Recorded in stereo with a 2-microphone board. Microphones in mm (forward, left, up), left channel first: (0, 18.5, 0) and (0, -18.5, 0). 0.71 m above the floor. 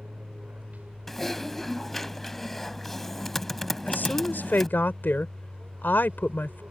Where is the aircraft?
45° right (ahead or behind).